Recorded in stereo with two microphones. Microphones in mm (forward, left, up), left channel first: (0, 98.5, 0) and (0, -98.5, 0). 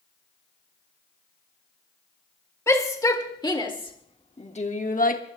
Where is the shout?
15° left (ahead or behind), 2.5 m; by 5.2 s 45° left (ahead or behind), 1.2 m.